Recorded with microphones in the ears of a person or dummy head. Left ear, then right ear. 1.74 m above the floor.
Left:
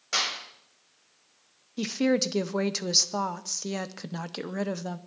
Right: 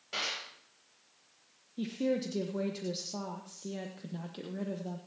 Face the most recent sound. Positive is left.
turn(degrees=55)  # may be behind; listen again after turning